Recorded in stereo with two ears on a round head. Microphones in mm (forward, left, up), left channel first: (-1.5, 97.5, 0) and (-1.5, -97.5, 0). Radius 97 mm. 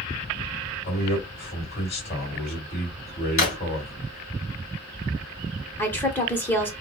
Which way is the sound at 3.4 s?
45° left (ahead or behind).